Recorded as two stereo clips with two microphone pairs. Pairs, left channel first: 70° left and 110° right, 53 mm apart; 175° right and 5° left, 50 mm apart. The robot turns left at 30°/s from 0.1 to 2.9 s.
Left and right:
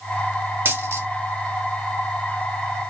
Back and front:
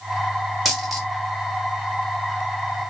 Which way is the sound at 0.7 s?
80° right.